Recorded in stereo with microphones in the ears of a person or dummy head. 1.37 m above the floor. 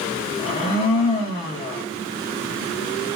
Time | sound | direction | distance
0.4 | a blender | 40° left (ahead or behind) | 0.7 m